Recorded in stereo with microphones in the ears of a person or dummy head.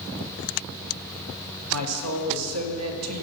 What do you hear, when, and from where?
1.7 s a woman speaking: 90° right, 0.9 m